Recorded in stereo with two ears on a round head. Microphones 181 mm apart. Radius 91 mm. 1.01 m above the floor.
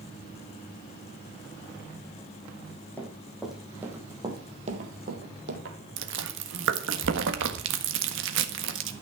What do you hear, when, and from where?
3.0 s running footsteps: 10° left (ahead or behind), 3 m; by 5.8 s 60° right (ahead or behind), 2.5 m
6.0 s chewing: 65° right (ahead or behind), 1.5 m